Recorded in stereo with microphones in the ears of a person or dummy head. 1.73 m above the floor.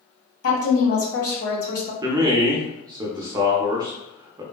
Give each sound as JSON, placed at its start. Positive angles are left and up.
{"t": 0.4, "sound": "a woman speaking", "side_deg": 70, "distance_m": 1.8}
{"t": 2.0, "sound": "a man speaking", "side_deg": -25, "distance_m": 0.5}